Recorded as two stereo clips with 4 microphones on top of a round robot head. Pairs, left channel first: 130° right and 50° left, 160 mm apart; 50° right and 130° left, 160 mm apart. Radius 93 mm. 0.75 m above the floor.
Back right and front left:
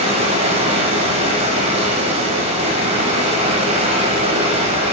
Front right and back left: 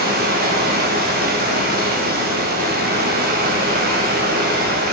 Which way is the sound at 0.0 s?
105° left.